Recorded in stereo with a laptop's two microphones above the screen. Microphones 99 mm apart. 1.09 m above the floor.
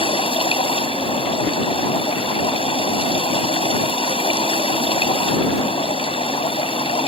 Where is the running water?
80° left.